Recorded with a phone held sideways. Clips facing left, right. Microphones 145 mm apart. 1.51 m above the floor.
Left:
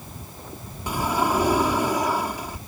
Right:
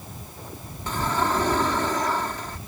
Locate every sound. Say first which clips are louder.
0.9 s a sliding door: left 2 dB; 10° left (ahead or behind)